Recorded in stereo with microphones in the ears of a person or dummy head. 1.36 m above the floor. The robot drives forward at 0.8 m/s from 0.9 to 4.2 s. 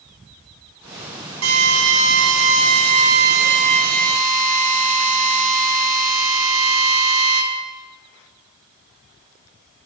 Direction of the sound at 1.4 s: 85° right.